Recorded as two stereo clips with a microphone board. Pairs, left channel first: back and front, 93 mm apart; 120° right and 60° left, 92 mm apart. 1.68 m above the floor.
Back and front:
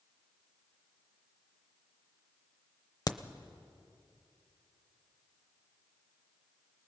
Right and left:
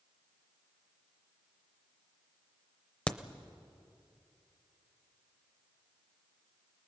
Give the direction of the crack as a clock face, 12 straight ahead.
6 o'clock.